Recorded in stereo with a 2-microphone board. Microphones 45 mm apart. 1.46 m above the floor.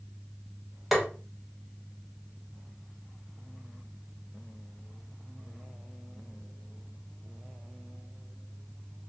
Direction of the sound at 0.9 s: 5° right (ahead or behind).